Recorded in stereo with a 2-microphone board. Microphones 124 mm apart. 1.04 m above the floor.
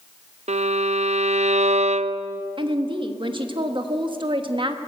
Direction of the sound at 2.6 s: 45° right (ahead or behind).